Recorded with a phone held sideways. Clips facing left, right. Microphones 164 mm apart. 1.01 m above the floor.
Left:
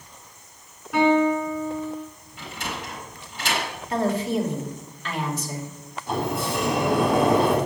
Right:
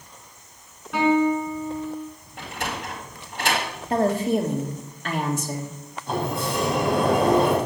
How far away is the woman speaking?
About 1.9 m.